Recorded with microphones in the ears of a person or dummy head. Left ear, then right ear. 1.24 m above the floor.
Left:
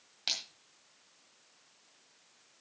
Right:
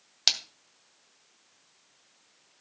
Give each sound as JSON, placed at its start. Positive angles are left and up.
{"t": 0.3, "sound": "a splash", "side_deg": -60, "distance_m": 2.0}